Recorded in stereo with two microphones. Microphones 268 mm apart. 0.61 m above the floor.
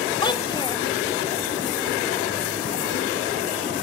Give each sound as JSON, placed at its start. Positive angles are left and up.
{"t": 0.2, "sound": "a child speaking", "side_deg": 20}